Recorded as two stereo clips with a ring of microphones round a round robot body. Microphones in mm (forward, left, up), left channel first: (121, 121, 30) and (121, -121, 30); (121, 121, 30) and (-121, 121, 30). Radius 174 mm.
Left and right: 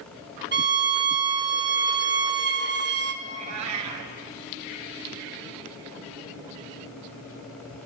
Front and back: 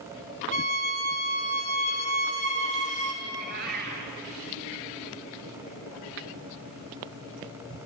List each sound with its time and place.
0.5 s a violin: 60° right, 1.8 m
3.2 s a cat meowing: 115° right, 1.5 m